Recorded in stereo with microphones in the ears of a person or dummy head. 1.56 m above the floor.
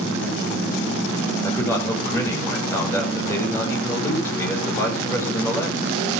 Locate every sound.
1.4 s a man speaking: 15° left (ahead or behind), 7.5 m